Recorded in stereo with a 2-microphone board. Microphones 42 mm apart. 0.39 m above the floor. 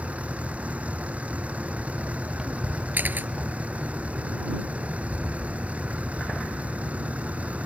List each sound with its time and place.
0.0 s a vehicle: 30° right (ahead or behind)
2.9 s a camera shutter: 45° right (ahead or behind)